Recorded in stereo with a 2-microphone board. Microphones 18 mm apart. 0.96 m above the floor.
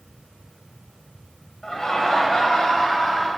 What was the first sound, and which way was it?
Laughter, 35° left (ahead or behind).